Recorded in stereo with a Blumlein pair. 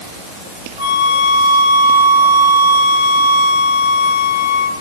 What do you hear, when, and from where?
0.8 s a flute: 55° left, 3 m